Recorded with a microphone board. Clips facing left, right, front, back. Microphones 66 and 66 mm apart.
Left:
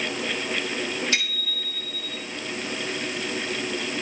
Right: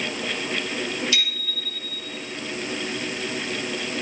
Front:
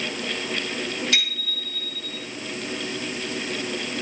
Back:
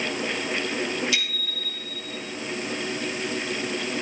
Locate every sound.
1.1 s a bicycle bell: 40° left, 5.5 m